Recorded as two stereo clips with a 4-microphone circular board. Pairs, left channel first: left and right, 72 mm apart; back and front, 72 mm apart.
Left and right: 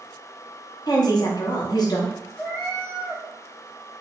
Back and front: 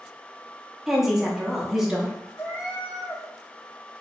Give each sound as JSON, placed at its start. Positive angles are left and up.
{"t": 0.9, "sound": "a woman speaking", "azimuth_deg": 85, "distance_m": 0.9}
{"t": 2.4, "sound": "a cat meowing", "azimuth_deg": 155, "distance_m": 1.3}